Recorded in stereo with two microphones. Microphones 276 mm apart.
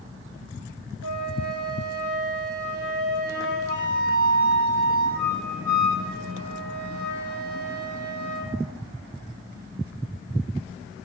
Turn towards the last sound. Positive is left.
turn(degrees=-55)  # may be behind; listen again after turning